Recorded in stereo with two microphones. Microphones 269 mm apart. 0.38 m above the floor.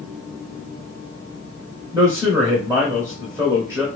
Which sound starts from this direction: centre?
A man speaking, at 1.9 s.